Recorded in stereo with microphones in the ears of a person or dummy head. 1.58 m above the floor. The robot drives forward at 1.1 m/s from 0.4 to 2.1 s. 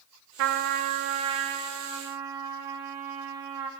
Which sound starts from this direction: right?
A trumpet, at 0.4 s.